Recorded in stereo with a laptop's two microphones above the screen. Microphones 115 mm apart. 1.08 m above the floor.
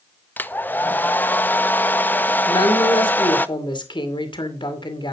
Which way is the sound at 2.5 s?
45° left (ahead or behind).